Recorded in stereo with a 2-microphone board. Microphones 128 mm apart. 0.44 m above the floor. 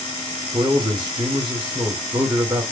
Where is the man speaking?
35° right (ahead or behind), 1.3 m.